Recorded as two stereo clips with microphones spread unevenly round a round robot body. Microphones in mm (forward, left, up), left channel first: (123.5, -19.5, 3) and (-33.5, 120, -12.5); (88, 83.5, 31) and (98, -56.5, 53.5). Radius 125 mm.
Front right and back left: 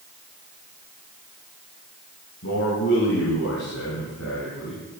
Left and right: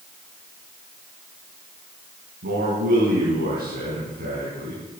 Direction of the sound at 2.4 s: 85° right.